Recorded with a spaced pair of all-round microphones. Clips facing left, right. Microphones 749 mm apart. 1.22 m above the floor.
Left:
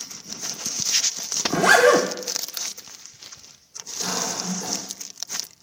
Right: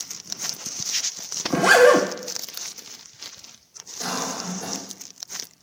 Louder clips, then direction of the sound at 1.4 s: Right 2 dB; centre (ahead or behind).